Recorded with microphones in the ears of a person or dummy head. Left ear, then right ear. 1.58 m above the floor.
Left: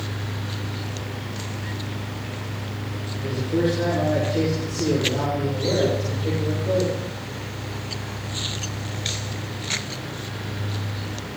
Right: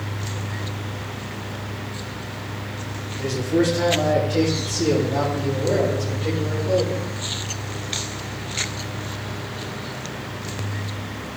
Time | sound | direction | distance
3.2 | a man speaking | 85° right | 1.7 m